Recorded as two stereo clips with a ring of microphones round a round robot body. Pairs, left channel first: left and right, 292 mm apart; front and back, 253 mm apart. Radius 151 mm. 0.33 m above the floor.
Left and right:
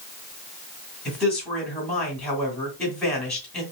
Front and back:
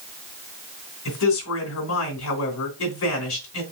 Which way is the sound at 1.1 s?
5° left.